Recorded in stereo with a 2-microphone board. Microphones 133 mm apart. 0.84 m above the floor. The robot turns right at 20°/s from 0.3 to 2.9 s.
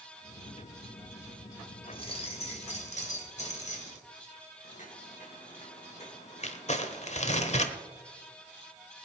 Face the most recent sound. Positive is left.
turn(degrees=55)  # may be behind; listen again after turning